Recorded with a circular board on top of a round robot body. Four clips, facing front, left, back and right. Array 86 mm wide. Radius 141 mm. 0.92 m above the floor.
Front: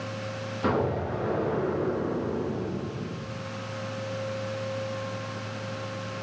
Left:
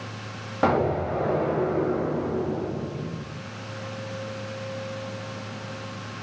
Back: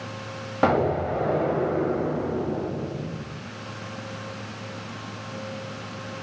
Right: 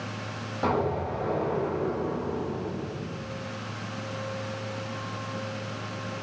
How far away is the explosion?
About 5.5 m.